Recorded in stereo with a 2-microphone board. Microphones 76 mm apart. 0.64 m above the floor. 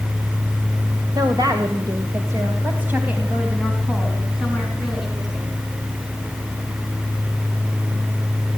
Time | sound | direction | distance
1.1 | a woman speaking | 70° right (ahead or behind) | 2.5 m